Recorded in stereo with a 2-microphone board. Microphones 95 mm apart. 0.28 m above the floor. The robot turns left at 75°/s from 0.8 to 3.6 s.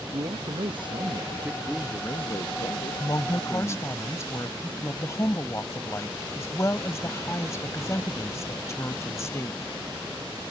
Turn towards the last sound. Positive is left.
turn(degrees=50)